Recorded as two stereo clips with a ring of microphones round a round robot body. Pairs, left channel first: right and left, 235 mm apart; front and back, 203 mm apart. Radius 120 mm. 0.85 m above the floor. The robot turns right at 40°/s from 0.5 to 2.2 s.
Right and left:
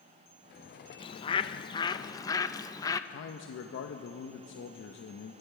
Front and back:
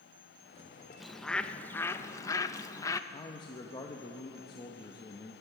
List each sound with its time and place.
1.0 s a bird: 90° right, 0.5 m; by 3.0 s 45° right, 0.5 m
3.1 s a man speaking: 65° right, 0.8 m